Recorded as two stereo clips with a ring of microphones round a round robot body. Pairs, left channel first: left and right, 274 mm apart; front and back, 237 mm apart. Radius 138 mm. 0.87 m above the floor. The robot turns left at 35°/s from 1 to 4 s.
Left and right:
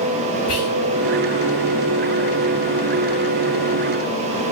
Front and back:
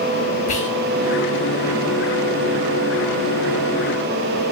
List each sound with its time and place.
0.5 s whispering: 60° left, 1.4 m